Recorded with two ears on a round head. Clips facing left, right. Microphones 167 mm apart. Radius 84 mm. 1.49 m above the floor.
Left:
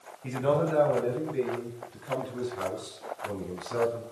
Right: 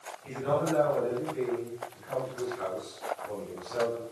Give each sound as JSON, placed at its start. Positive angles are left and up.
{"t": 0.2, "sound": "a man speaking", "side_deg": 75, "distance_m": 9.5}